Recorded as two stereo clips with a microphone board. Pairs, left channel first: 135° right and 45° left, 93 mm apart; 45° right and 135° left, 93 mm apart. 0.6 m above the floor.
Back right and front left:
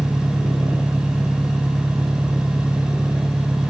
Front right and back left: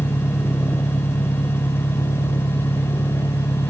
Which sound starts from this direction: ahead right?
An engine running, at 0.0 s.